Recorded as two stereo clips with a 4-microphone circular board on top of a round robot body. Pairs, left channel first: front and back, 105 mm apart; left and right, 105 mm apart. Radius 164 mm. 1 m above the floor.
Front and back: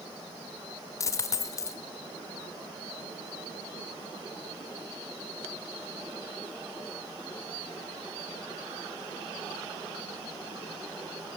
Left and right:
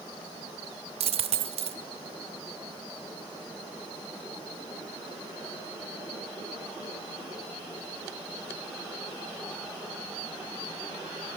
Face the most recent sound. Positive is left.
turn(degrees=-60)